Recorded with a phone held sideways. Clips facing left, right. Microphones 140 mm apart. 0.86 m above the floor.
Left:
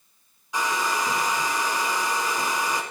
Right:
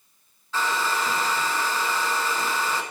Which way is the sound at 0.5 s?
15° left (ahead or behind).